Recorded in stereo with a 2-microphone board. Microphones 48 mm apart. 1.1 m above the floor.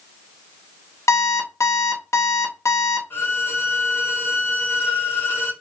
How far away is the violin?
About 1.6 m.